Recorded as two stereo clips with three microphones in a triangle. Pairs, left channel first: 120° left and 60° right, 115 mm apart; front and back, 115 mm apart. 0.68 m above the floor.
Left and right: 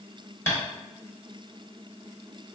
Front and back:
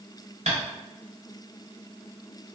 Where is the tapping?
170° right, 1.6 m.